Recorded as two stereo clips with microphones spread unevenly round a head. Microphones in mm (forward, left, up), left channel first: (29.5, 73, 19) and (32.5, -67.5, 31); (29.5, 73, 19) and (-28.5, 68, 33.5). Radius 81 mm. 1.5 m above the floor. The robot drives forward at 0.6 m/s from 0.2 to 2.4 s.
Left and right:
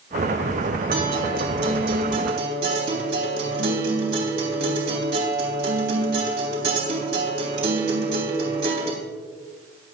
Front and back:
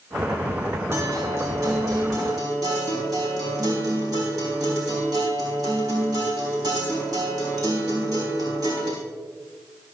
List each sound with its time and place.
0.9 s a guitar: 110° right, 3.5 m; by 8.9 s 120° right, 4 m